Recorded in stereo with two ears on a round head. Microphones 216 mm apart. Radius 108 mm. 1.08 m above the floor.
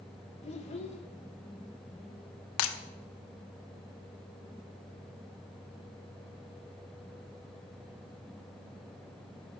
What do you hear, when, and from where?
0.4 s a child speaking: 30° left (ahead or behind), 1.9 m
2.6 s breaking glass: 60° left (ahead or behind), 0.8 m